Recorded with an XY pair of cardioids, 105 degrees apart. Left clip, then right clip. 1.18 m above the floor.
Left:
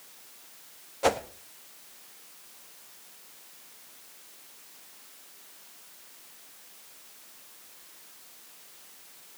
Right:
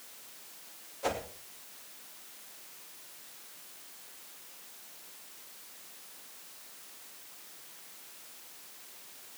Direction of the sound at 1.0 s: 65° left.